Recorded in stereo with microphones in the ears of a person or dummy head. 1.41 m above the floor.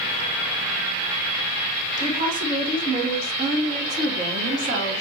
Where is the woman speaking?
25° right (ahead or behind), 1.7 m; by 5.0 s 45° right (ahead or behind), 3 m.